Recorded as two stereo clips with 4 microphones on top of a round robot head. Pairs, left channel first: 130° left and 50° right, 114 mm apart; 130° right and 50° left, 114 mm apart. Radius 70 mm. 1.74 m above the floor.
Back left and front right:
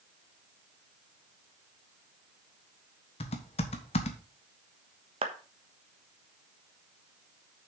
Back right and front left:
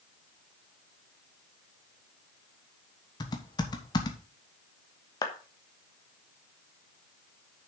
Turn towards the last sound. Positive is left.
turn(degrees=-85)